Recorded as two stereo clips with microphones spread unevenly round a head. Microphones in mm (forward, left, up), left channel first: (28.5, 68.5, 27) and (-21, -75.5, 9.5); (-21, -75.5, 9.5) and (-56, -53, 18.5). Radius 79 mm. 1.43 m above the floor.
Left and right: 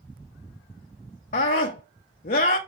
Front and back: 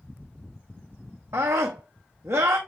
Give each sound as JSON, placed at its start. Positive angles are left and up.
{"t": 1.3, "sound": "a scream", "azimuth_deg": 110, "distance_m": 0.7}